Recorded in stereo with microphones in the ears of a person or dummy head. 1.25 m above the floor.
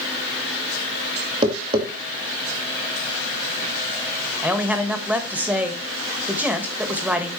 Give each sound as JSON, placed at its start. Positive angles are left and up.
{"t": 1.4, "sound": "tapping", "side_deg": -30, "distance_m": 2.0}
{"t": 4.4, "sound": "a man speaking", "side_deg": -10, "distance_m": 1.4}